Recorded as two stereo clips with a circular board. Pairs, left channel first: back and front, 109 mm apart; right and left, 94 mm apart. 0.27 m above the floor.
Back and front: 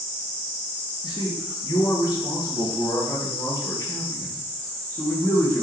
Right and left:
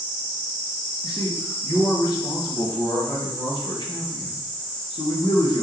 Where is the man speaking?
135° right, 5.5 m; by 5.6 s 110° right, 5.5 m.